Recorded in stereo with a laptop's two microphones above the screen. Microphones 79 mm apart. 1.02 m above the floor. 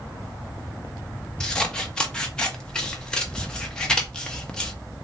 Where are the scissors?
10° left (ahead or behind), 0.6 m.